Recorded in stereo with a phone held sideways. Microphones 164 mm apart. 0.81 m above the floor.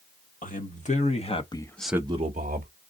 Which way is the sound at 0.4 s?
55° left (ahead or behind).